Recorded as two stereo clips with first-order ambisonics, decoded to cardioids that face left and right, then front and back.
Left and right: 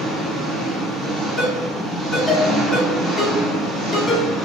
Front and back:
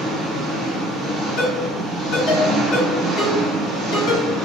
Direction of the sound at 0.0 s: 175° right.